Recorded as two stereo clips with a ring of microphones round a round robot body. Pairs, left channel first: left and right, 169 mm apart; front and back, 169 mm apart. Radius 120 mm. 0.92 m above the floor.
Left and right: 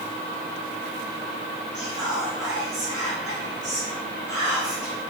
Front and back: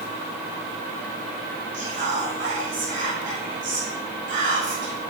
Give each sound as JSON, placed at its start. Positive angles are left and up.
{"t": 1.7, "sound": "whispering", "azimuth_deg": -175, "distance_m": 1.9}